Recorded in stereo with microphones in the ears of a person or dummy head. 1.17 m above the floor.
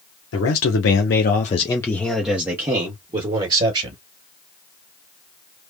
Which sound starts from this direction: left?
A man speaking, at 0.3 s.